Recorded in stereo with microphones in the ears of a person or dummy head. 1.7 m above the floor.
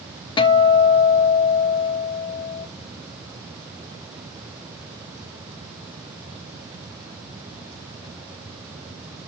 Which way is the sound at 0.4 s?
25° left (ahead or behind).